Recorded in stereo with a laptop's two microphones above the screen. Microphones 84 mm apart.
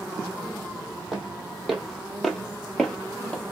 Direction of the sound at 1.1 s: Centre (ahead or behind).